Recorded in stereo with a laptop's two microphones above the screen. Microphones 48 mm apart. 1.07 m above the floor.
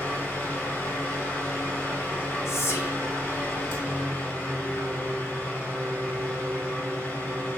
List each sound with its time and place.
0.0 s a fan: 60° left (ahead or behind), 1.8 m
2.5 s whispering: 70° left (ahead or behind), 0.8 m